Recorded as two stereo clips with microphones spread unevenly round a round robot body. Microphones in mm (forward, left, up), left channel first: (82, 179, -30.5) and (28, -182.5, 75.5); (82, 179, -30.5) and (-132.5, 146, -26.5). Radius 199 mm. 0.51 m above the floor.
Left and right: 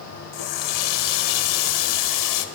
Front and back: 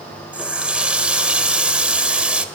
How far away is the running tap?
About 1.5 m.